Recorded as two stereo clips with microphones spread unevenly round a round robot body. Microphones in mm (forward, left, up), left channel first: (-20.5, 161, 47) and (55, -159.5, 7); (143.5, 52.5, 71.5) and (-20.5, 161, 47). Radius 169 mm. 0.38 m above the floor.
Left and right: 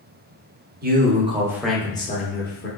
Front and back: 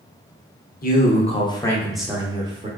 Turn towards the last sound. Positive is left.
turn(degrees=140)